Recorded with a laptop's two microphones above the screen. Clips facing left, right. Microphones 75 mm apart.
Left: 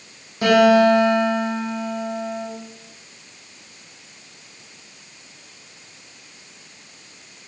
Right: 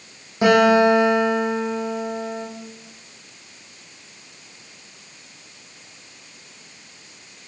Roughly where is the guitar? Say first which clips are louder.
Left 1 dB; right.